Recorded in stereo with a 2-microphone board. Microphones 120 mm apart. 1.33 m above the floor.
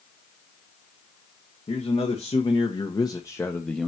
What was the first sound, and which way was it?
A man speaking, 60° left (ahead or behind).